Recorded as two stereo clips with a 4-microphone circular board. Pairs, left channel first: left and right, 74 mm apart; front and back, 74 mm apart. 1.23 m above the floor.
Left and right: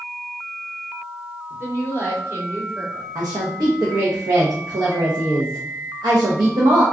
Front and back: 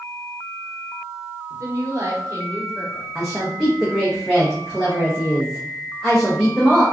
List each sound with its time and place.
1.5 s a woman speaking: 140° right, 1.1 m
3.1 s a woman speaking: 90° right, 0.7 m